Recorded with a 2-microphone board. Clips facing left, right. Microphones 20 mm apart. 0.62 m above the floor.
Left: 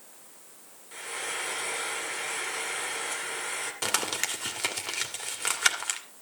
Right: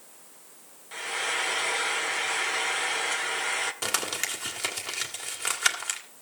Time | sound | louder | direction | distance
0.9 | frying | right 5 dB | 15° right (ahead or behind) | 1.5 m
3.8 | crumpling | even | centre (ahead or behind) | 2 m